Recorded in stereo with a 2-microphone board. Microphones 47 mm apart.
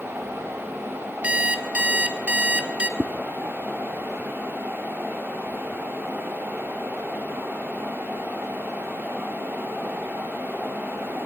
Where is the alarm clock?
25° right (ahead or behind), 1.3 m.